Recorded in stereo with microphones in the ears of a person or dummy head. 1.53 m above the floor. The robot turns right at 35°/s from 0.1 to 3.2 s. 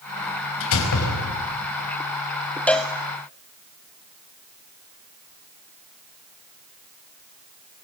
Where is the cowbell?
5° left (ahead or behind), 1.4 m; by 2.9 s centre (ahead or behind), 1.4 m.